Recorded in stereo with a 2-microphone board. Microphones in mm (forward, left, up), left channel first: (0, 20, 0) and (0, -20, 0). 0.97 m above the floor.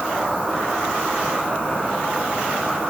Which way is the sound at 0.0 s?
55° right (ahead or behind).